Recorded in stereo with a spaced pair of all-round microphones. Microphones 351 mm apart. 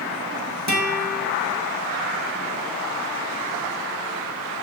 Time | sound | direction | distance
0.7 | a guitar | 50° right (ahead or behind) | 2.5 m